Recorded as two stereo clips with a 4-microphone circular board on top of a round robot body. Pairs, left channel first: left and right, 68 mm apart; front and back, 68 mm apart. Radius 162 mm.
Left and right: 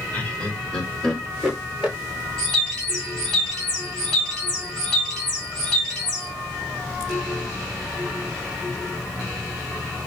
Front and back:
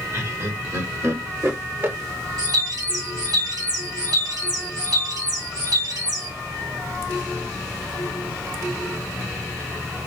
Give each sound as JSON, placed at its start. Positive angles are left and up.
{"t": 0.1, "sound": "laughter", "azimuth_deg": 155, "distance_m": 2.0}
{"t": 2.4, "sound": "a bird", "azimuth_deg": 175, "distance_m": 2.5}